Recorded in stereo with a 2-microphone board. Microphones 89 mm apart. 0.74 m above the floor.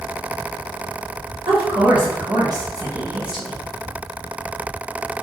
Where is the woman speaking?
65° right (ahead or behind), 1.5 m; by 3.6 s 10° left (ahead or behind), 0.7 m.